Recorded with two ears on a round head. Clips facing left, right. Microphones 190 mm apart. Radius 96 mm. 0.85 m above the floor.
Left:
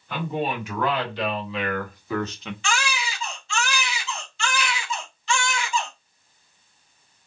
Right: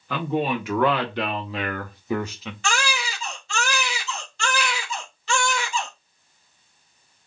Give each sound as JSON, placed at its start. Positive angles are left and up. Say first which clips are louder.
{"t": 0.1, "sound": "a man speaking", "louder": "right 3 dB", "side_deg": -60, "distance_m": 1.7}
{"t": 2.6, "sound": "a baby crying", "louder": "right 1 dB", "side_deg": -40, "distance_m": 2.0}